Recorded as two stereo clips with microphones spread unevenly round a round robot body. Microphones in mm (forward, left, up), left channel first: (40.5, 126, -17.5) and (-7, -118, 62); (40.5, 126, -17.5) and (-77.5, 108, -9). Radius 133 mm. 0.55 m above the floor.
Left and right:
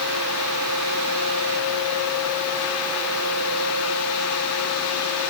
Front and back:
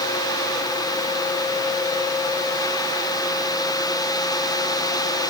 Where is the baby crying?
I don't hear a baby crying.